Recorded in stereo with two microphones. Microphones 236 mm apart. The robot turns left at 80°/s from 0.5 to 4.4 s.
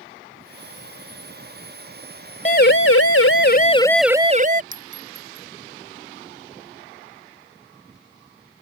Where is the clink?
35° right (ahead or behind).